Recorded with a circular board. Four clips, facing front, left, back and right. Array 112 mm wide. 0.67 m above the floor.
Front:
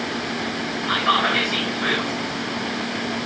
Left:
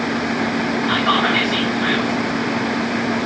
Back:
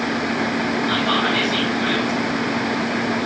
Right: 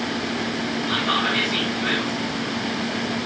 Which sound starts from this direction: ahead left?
Whispering, at 0.9 s.